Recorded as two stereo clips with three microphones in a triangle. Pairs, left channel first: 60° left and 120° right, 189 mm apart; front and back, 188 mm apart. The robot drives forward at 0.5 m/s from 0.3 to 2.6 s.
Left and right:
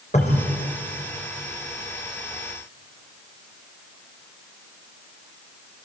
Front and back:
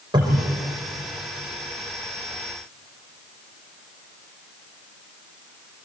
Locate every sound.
0.1 s a cupboard door: 115° left, 5.5 m